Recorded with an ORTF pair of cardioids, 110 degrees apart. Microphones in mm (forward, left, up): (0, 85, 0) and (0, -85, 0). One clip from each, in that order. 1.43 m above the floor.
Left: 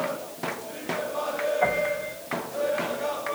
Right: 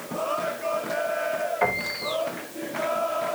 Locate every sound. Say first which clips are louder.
1.6 s a piano: left 1 dB; 55° right, 3.5 m